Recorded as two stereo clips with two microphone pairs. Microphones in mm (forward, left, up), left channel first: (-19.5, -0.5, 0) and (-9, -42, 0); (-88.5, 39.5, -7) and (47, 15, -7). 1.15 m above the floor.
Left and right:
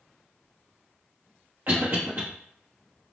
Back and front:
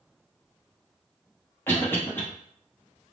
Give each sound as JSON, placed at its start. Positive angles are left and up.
{"t": 1.7, "sound": "a cough", "azimuth_deg": -120, "distance_m": 0.9}